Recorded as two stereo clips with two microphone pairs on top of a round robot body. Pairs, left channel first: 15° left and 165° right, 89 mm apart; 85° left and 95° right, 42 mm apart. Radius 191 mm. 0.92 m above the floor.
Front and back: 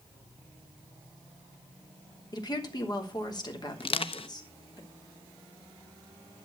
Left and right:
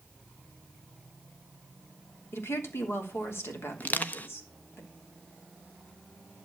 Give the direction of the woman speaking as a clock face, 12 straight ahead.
10 o'clock.